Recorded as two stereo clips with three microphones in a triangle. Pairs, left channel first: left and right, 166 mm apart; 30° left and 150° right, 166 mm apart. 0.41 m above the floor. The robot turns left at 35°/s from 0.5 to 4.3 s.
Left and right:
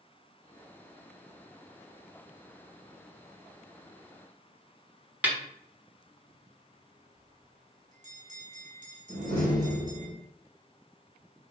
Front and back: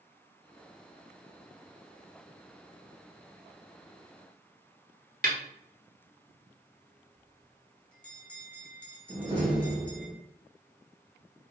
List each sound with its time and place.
5.2 s a snare drum: 170° right, 1.0 m
7.2 s a bell: 50° right, 1.1 m
9.1 s a door slam: 90° right, 1.6 m